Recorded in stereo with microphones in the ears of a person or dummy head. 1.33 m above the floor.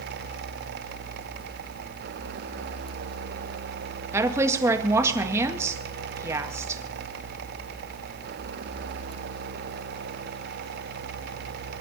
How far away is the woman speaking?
About 1.7 m.